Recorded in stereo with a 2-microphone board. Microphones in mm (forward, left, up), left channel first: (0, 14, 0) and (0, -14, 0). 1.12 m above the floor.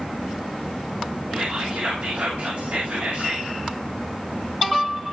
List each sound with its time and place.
1.3 s whispering: 90° right, 2 m